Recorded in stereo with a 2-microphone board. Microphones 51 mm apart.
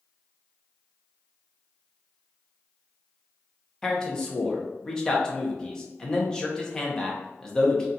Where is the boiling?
I don't hear boiling.